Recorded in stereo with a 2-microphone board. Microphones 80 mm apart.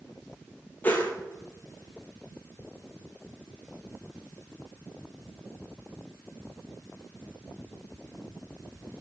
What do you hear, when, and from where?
0.8 s a whoosh: 25° left (ahead or behind), 0.8 m